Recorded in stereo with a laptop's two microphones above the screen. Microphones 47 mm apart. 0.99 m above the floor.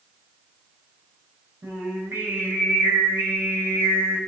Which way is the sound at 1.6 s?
65° right (ahead or behind).